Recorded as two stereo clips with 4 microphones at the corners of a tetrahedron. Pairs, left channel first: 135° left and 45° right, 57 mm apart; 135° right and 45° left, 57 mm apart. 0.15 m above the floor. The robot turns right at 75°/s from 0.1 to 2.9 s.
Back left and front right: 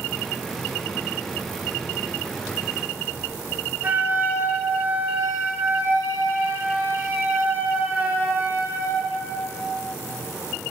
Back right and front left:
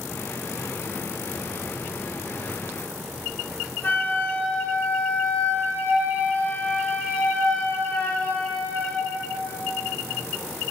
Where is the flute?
85° right, 1.2 m.